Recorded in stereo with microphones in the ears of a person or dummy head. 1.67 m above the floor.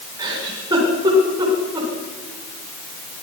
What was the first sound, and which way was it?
A giggle, 20° right (ahead or behind).